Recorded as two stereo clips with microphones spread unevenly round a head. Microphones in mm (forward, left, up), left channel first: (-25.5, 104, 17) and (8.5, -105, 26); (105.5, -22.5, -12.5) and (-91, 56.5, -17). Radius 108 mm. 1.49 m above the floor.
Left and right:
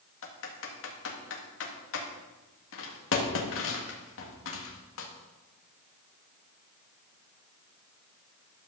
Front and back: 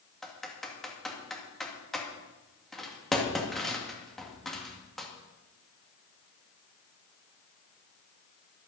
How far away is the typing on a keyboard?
About 2 m.